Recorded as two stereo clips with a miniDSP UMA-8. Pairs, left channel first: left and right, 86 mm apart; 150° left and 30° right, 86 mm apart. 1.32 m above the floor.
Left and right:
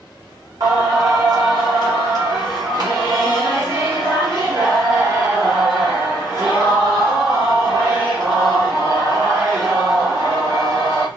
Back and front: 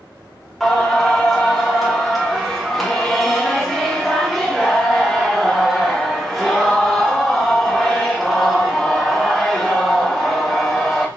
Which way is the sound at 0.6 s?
125° right.